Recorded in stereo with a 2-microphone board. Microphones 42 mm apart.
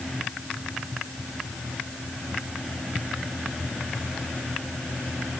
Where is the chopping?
No chopping in this recording.